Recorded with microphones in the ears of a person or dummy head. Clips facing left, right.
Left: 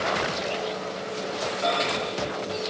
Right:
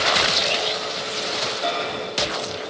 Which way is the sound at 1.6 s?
40° left (ahead or behind).